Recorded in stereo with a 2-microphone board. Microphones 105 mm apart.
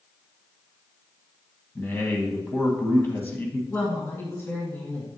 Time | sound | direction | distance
1.8 | a man speaking | 20° left (ahead or behind) | 1.4 m
3.7 | a woman speaking | 20° left (ahead or behind) | 1.8 m